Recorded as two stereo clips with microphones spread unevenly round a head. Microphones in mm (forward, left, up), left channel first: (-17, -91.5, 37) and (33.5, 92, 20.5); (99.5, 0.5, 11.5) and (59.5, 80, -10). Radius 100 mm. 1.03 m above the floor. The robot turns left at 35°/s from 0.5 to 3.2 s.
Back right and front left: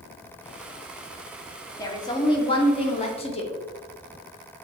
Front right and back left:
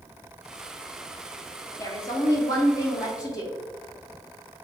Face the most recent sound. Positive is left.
turn(degrees=-95)